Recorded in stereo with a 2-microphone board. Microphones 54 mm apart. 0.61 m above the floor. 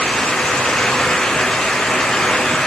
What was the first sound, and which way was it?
Only background noise.